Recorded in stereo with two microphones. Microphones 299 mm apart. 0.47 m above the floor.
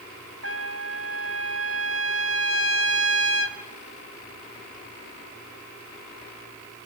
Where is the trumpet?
50° right (ahead or behind), 2 m.